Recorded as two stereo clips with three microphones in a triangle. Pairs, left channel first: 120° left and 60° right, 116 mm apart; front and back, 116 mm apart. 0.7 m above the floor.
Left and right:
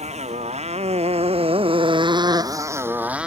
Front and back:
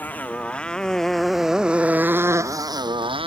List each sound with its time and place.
0.0 s a motorcycle: 75° right; by 3.3 s 140° right